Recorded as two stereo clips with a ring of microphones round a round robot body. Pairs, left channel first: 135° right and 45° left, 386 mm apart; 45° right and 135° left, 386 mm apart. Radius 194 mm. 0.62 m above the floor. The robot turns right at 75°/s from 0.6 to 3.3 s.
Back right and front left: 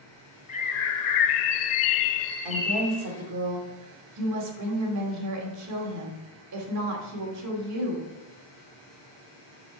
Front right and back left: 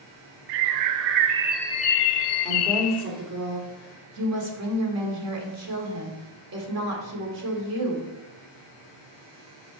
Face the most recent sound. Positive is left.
turn(degrees=90)